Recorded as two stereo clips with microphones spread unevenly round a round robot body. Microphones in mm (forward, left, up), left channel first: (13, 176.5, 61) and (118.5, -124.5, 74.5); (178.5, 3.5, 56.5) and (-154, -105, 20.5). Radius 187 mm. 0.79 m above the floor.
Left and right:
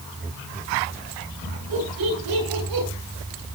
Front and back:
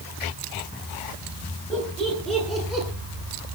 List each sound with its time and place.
1.7 s laughter: 70° right, 10 m; by 2.9 s 75° right, 8.5 m